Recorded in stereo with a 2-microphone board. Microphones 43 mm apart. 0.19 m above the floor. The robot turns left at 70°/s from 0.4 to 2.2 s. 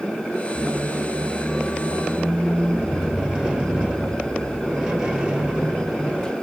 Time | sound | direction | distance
0.6 | a squeak | 45° right | 0.8 m